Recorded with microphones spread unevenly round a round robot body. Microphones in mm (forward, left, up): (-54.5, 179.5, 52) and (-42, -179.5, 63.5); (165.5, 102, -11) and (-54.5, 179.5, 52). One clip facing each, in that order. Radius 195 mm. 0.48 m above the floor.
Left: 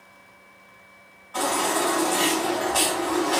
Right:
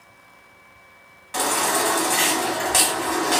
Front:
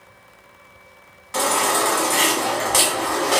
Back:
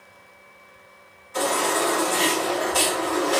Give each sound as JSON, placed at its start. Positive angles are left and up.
{"t": 1.3, "sound": "a baby crying", "azimuth_deg": -40, "distance_m": 1.2}